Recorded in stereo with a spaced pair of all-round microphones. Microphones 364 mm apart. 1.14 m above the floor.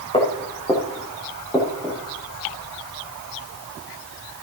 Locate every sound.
0.1 s footsteps: 15° left (ahead or behind), 4.5 m; by 2.0 s centre (ahead or behind), 6 m